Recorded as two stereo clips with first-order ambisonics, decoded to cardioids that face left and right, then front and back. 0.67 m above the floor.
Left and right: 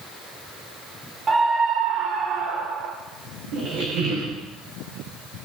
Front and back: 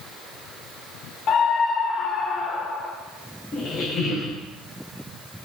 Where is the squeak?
75° right, 4 m.